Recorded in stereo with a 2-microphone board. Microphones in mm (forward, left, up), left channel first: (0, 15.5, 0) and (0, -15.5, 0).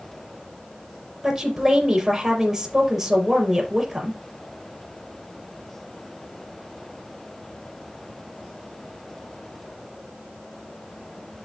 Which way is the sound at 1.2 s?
10° right (ahead or behind).